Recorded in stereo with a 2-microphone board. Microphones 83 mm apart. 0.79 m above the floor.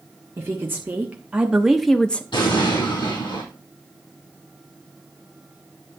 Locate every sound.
0.4 s a woman speaking: 30° right (ahead or behind), 1.4 m; by 2.2 s 15° left (ahead or behind), 0.6 m
2.3 s an explosion: 80° left, 6.5 m